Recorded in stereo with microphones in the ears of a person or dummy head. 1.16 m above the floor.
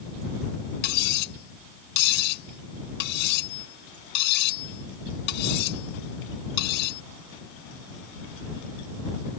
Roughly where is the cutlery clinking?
Left.